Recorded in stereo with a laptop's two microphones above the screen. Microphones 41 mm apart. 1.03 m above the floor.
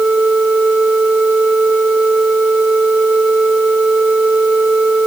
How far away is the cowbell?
No cowbell in this recording.